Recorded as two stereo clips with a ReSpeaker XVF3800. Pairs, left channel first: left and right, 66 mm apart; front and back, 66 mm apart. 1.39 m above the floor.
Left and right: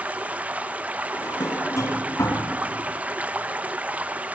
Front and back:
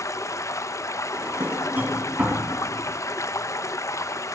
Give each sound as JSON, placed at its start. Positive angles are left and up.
{"t": 0.0, "sound": "running water", "azimuth_deg": -25, "distance_m": 0.8}
{"t": 1.1, "sound": "a drawer", "azimuth_deg": 120, "distance_m": 3.0}